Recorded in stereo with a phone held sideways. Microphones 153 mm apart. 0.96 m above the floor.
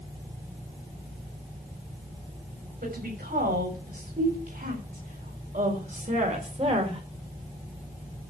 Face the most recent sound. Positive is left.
turn(degrees=-40)  # may be behind; listen again after turning